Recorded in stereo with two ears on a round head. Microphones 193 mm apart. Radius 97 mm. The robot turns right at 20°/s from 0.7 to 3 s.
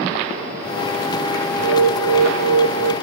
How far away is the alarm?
About 1.8 m.